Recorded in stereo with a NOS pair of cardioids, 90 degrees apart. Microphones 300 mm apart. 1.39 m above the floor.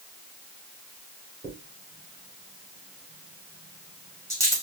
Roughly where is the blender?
I don't hear a blender.